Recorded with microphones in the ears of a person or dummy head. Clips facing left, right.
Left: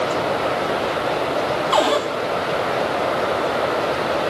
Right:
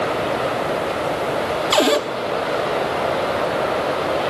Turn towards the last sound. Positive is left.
turn(degrees=-25)  # may be behind; listen again after turning